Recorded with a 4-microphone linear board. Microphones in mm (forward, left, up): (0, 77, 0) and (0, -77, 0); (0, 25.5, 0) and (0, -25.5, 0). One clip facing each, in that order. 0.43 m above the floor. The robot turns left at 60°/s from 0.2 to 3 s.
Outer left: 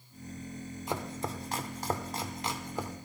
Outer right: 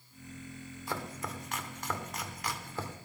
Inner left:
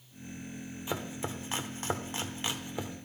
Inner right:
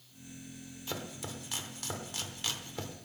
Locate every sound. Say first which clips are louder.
0.9 s chopping: outer left 3 dB, inner left 5 dB; 20° left (ahead or behind), 1.0 m; by 3.0 s 10° left (ahead or behind), 1.0 m